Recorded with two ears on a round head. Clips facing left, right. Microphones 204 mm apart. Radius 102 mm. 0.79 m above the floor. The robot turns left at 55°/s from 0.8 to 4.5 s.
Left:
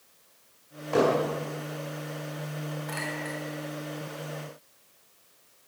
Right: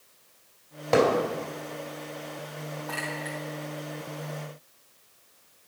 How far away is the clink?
About 3 m.